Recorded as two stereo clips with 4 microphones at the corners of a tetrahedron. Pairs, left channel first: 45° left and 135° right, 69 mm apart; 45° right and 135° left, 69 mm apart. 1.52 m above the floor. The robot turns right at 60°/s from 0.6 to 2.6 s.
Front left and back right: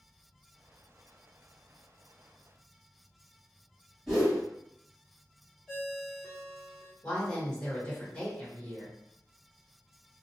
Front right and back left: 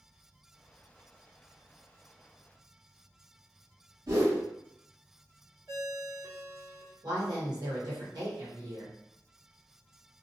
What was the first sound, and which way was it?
A whoosh, 140° left.